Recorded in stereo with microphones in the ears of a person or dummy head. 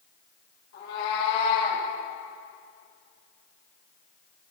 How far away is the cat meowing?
About 3 m.